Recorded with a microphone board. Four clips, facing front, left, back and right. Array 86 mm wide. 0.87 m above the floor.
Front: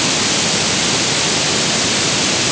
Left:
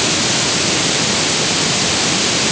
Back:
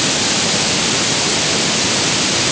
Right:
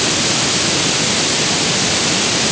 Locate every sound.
Only background noise.